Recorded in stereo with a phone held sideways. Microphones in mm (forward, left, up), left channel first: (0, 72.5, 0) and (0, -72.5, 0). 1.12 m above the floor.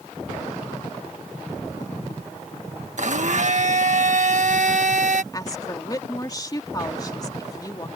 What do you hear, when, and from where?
3.0 s a blender: 65° right (ahead or behind)
5.3 s a woman speaking: 25° left (ahead or behind)